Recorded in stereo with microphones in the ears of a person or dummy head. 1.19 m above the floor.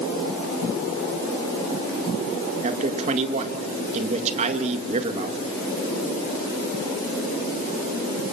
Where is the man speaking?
35° right (ahead or behind), 1.9 m.